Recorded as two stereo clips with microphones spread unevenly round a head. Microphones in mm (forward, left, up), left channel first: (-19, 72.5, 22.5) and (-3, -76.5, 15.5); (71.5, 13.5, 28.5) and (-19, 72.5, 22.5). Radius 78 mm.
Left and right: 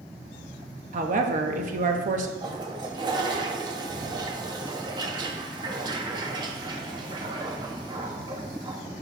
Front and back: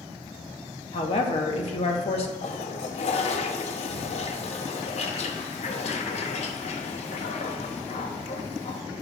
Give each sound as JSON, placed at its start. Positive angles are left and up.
{"t": 0.9, "sound": "a woman speaking", "azimuth_deg": -60, "distance_m": 0.9}
{"t": 2.4, "sound": "a toilet flushing", "azimuth_deg": -20, "distance_m": 0.6}